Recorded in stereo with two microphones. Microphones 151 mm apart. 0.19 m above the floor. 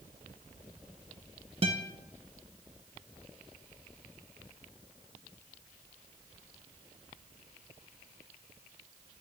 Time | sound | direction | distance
1.6 | a guitar | 40° right (ahead or behind) | 0.6 m